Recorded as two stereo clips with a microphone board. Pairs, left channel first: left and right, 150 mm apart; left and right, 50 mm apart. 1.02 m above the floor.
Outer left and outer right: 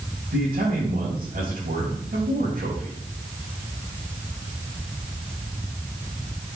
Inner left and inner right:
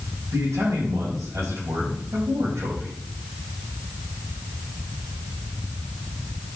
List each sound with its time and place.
0.3 s a man speaking: 80° right, 4.5 m